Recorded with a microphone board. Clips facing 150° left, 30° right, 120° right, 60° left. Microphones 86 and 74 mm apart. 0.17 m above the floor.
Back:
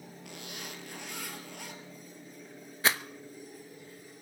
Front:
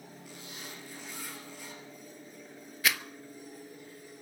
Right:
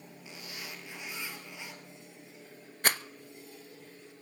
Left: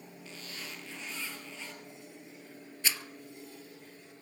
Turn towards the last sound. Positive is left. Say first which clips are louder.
# back 2 dB, right 6 dB
turn(degrees=-155)